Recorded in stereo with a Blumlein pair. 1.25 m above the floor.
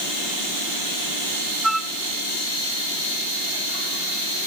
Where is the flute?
5° right, 0.5 m.